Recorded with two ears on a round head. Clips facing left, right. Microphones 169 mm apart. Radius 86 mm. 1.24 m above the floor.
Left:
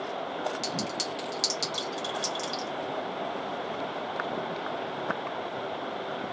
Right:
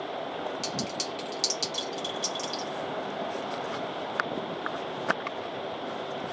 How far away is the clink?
About 1.1 m.